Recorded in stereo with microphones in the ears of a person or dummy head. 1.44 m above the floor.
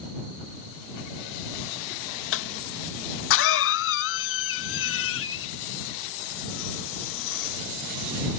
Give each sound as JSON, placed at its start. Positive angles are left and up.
{"t": 2.3, "sound": "a cough", "side_deg": 65}